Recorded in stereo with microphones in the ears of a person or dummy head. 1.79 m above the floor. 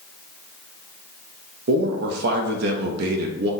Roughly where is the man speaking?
Right.